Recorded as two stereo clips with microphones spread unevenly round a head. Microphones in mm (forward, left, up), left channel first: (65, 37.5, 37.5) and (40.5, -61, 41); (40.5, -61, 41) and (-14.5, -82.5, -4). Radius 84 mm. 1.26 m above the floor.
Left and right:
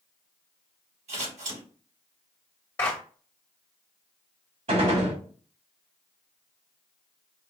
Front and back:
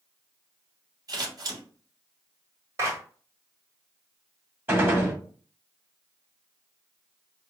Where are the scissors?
125° right, 2 m.